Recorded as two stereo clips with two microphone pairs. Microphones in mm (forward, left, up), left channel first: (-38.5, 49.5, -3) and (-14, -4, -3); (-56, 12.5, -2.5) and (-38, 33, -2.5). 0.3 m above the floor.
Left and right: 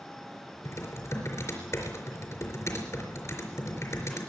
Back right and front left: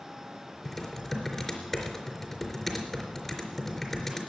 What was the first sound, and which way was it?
Typing on a keyboard, 145° left.